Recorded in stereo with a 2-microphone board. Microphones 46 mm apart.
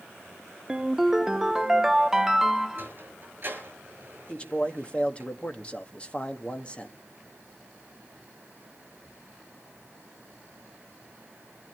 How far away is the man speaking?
About 1.5 m.